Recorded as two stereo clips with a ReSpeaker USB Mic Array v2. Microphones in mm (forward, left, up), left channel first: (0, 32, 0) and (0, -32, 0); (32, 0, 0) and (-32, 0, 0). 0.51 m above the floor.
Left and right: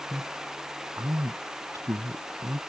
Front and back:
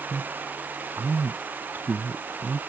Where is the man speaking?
140° right; by 2.6 s 120° right.